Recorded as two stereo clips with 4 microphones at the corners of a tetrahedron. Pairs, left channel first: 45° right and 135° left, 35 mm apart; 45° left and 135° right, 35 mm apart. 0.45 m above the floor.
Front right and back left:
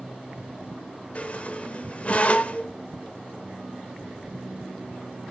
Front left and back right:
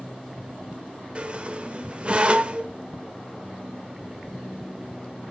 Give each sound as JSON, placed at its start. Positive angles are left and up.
{"t": 1.1, "sound": "a squeak", "azimuth_deg": -90, "distance_m": 1.0}